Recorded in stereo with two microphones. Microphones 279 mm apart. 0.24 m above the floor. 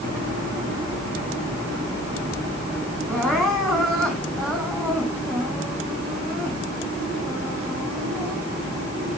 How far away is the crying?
About 4.5 m.